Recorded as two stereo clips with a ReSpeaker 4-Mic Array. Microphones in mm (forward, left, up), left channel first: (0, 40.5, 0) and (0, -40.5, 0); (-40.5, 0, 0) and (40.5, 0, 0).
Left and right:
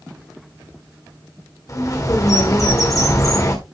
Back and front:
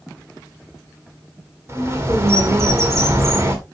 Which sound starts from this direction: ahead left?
A bird, at 1.7 s.